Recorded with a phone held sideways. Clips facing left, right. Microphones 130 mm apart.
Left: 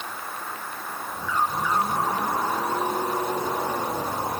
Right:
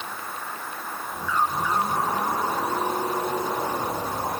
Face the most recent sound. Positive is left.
No sound to turn to.